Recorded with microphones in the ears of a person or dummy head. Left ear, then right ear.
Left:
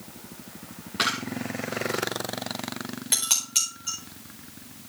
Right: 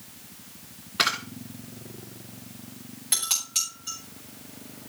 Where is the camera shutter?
10° right (ahead or behind), 1.0 m.